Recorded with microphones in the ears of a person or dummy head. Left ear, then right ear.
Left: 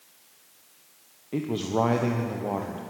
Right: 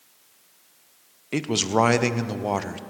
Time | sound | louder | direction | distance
1.3 | a man speaking | right 5 dB | 65° right (ahead or behind) | 0.8 m